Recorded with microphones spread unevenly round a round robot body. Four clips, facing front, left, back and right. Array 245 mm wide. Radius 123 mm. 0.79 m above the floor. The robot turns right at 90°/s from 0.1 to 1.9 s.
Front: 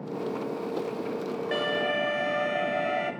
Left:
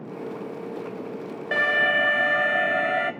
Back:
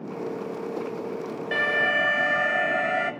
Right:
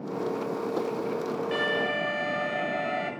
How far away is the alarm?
About 1.7 m.